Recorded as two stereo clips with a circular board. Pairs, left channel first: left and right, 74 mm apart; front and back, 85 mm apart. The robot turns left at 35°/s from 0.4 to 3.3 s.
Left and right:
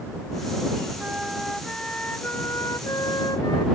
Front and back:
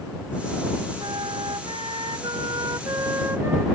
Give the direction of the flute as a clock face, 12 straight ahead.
5 o'clock.